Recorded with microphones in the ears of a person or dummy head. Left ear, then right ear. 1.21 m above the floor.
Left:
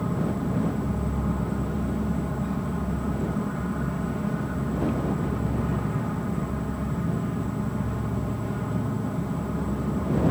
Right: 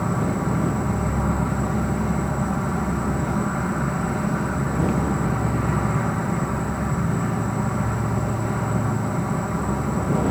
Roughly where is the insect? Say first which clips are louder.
Right 5 dB; right.